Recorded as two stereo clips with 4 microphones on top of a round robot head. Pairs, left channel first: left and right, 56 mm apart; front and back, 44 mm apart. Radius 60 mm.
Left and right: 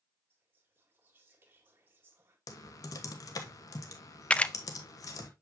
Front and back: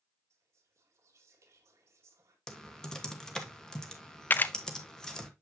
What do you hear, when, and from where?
0.3 s whispering: 150° right, 1.7 m
2.5 s typing on a keyboard: 75° left, 1.4 m
4.3 s a camera shutter: 30° left, 0.5 m